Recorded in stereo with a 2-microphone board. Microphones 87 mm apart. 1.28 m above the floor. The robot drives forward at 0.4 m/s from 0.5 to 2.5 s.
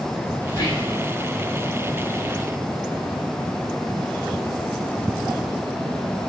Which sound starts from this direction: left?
Whispering, at 0.5 s.